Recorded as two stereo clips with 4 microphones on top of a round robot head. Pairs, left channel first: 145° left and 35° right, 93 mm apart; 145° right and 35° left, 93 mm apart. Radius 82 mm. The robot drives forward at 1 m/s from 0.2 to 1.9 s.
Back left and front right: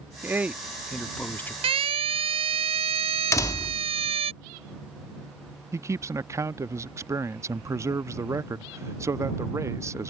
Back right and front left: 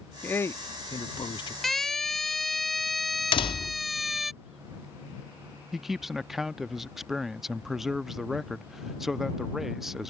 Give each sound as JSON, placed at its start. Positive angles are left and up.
{"t": 0.2, "sound": "a man speaking", "azimuth_deg": -85}
{"t": 1.6, "sound": "a siren", "azimuth_deg": -60}
{"t": 3.3, "sound": "a door slam", "azimuth_deg": -160}
{"t": 5.7, "sound": "a man speaking", "azimuth_deg": -50}